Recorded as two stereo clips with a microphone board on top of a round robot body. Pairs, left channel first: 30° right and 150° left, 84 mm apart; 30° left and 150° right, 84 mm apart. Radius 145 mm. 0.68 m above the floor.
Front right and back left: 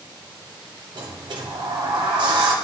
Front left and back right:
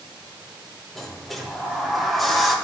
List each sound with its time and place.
0.9 s a sliding door: 120° left, 1.2 m